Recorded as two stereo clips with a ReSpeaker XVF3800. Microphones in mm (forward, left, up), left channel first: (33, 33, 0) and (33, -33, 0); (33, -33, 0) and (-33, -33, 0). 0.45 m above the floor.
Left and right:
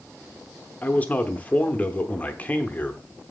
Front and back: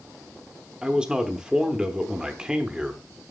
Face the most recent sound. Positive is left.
turn(degrees=120)